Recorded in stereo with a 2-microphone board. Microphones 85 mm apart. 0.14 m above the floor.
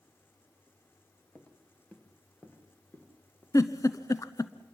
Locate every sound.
1.4 s footsteps: 15° left (ahead or behind), 2 m; by 3.4 s 20° left (ahead or behind), 5 m
3.5 s a giggle: 40° left (ahead or behind), 0.9 m